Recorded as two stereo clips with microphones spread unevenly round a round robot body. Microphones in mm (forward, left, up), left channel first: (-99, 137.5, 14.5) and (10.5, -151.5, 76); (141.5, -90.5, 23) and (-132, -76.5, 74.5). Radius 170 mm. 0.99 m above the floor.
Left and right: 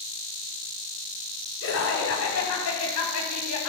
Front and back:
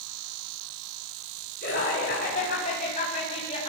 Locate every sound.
1.6 s laughter: 60° left, 9 m; by 3.7 s 70° left, 9 m